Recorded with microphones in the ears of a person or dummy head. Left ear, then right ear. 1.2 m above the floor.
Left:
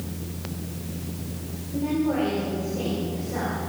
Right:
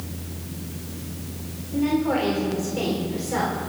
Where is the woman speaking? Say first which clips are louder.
Right 3 dB; 70° right (ahead or behind), 3.5 m.